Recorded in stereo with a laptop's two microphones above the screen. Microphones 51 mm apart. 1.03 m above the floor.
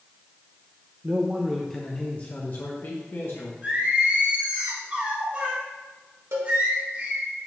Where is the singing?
35° right (ahead or behind), 1.7 m.